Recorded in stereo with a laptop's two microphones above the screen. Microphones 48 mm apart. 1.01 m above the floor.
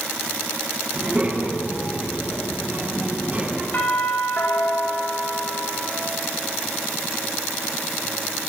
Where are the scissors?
I don't hear scissors.